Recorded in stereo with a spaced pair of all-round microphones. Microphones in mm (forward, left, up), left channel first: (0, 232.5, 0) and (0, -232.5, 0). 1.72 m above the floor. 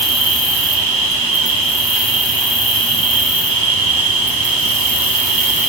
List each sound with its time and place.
0.0 s an insect: 70° right (ahead or behind), 3 m